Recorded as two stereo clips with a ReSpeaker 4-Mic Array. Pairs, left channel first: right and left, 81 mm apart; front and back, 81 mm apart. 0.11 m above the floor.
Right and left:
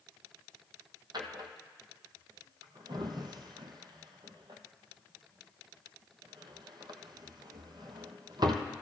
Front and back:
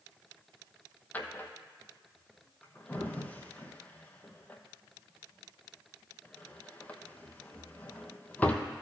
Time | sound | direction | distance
1.1 | a drawer | 70° left | 0.9 m